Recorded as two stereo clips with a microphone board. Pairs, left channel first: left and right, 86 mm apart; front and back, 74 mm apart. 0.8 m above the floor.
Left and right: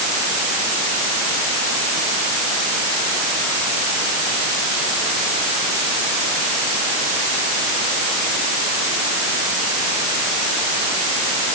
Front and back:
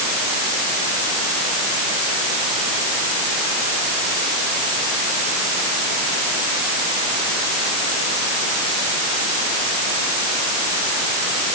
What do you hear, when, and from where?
Only background noise.